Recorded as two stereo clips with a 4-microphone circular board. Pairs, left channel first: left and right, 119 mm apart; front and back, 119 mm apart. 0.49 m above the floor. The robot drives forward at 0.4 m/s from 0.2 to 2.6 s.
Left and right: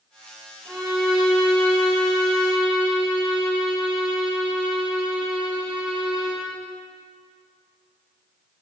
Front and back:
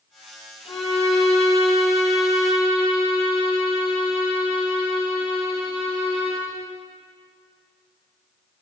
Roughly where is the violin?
Ahead right.